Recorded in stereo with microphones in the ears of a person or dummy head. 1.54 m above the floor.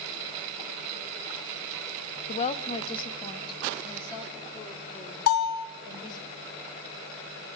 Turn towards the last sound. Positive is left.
turn(degrees=60)  # may be behind; listen again after turning